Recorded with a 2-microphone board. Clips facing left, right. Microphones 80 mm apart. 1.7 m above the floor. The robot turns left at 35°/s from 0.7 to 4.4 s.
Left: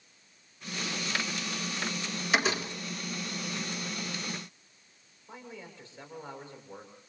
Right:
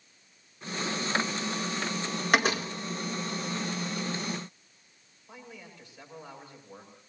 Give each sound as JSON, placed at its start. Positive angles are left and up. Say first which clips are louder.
{"t": 2.3, "sound": "a door slam", "louder": "right 3 dB", "side_deg": -55, "distance_m": 1.9}
{"t": 5.3, "sound": "a man speaking", "louder": "left 2 dB", "side_deg": 30, "distance_m": 8.0}